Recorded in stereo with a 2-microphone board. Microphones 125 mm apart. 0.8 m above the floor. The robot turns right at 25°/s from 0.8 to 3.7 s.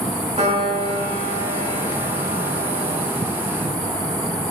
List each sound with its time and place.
0.4 s a piano: 95° right, 1.0 m; by 3.0 s 40° right, 1.0 m